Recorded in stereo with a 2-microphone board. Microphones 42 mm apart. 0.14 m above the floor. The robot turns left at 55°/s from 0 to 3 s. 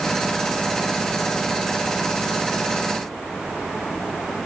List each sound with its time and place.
Only background noise.